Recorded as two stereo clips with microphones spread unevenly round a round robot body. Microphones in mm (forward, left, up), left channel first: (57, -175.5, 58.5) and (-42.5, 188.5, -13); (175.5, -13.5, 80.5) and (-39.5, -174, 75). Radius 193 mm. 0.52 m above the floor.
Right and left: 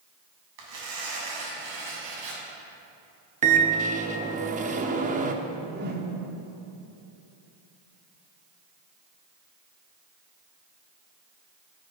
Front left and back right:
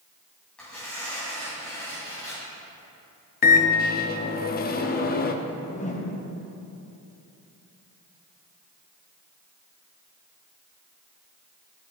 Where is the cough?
No cough in this recording.